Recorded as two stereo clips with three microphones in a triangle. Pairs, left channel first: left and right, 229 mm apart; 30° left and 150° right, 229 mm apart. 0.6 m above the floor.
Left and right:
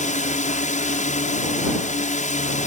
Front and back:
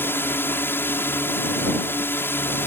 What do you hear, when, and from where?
0.0 s a drone: 105° left